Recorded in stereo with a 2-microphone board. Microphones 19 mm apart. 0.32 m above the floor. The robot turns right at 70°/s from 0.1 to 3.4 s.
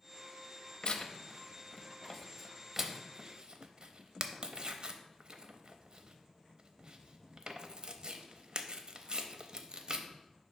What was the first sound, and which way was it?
Tearing paper, 45° left (ahead or behind).